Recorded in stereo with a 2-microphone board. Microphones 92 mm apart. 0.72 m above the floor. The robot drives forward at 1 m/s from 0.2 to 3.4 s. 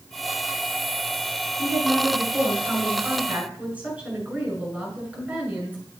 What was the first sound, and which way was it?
A woman speaking, 25° right (ahead or behind).